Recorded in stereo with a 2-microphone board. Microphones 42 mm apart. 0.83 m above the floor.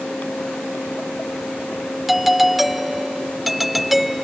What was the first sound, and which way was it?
A doorbell, 5° right (ahead or behind).